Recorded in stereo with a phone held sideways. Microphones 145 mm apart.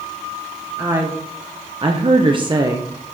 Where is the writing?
I don't hear writing.